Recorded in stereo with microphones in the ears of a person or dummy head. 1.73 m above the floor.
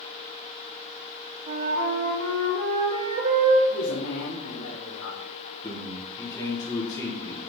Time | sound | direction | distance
1.5 | a flute | 50° right (ahead or behind) | 4 m
3.7 | a man speaking | 85° left | 1.5 m
5.6 | a man speaking | 25° left (ahead or behind) | 3 m